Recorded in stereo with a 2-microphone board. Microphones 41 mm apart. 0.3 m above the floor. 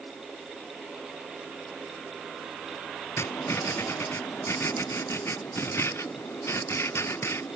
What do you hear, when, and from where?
3.2 s writing: 75° left (ahead or behind)